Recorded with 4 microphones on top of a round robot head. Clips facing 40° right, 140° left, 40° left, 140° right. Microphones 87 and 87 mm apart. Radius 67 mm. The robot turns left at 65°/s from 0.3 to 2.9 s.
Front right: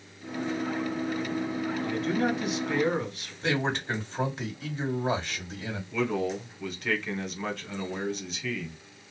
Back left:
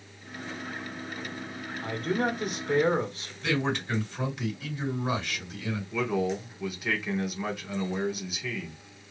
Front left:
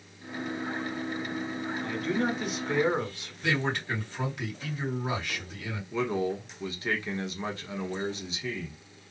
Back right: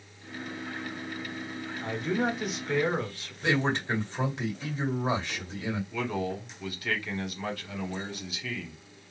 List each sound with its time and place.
1.8 s a man speaking: 175° left, 1.5 m; by 3.3 s 105° left, 1.5 m
3.4 s a man speaking: 85° right, 1.9 m
5.9 s a man speaking: 65° left, 1.3 m